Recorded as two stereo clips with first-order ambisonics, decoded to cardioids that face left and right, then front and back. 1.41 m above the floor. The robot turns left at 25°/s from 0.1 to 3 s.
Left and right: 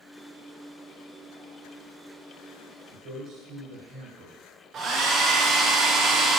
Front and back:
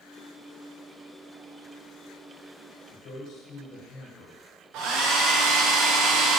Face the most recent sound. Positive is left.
turn(degrees=-145)